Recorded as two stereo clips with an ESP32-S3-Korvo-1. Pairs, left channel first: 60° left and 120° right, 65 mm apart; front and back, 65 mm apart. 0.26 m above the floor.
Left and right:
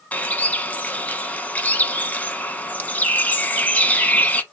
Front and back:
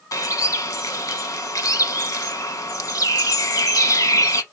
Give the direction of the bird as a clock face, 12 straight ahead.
12 o'clock.